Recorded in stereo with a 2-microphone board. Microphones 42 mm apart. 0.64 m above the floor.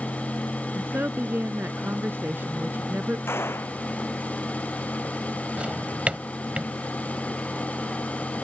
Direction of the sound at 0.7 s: 55° right (ahead or behind).